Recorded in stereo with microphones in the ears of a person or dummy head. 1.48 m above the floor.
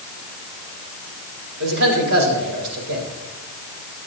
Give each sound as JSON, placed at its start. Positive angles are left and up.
{"t": 1.6, "sound": "a man speaking", "side_deg": -70, "distance_m": 3.5}